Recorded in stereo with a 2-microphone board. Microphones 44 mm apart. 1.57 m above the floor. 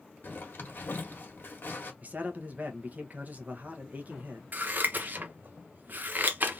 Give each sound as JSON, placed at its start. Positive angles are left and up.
{"t": 0.2, "sound": "a zipper", "side_deg": 55, "distance_m": 1.3}
{"t": 2.0, "sound": "a man speaking", "side_deg": -40, "distance_m": 0.9}
{"t": 4.5, "sound": "scissors", "side_deg": -50, "distance_m": 0.7}